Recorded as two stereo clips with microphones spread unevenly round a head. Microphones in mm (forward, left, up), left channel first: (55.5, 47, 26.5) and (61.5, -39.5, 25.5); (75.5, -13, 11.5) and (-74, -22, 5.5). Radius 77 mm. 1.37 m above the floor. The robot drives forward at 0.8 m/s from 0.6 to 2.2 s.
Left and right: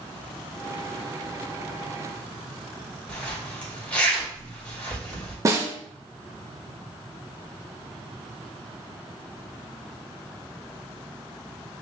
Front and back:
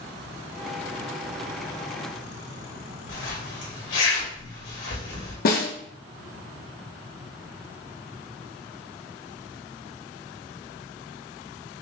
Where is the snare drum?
30° right, 1.0 m.